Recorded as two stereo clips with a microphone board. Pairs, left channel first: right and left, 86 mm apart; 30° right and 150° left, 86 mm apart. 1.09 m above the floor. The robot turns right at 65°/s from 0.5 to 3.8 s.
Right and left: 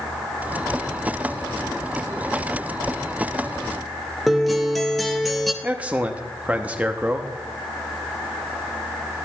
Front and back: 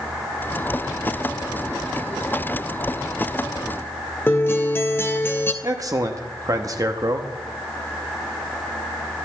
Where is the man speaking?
155° left, 0.7 m.